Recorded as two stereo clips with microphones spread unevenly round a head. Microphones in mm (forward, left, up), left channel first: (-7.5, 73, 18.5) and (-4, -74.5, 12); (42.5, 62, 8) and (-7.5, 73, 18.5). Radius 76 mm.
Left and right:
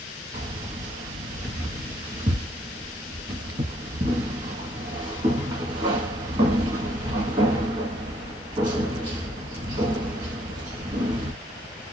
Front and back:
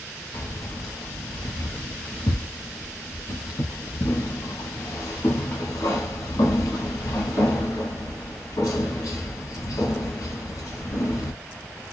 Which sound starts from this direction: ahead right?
Keys jangling, at 0.3 s.